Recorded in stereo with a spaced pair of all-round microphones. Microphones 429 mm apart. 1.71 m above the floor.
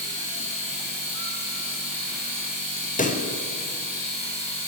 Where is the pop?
20° left (ahead or behind), 0.7 m.